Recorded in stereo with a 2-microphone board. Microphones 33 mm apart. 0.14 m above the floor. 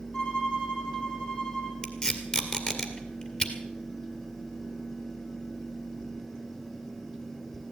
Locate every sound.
0.1 s a violin: 35° left (ahead or behind), 5.5 m
1.8 s tape being pulled: 30° left (ahead or behind), 2.0 m